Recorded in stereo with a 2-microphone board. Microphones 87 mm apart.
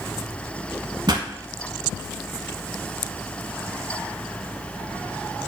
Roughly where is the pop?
Right.